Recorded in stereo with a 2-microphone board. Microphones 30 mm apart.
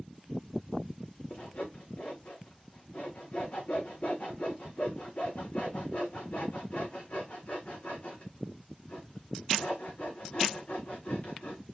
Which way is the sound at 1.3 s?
50° left (ahead or behind).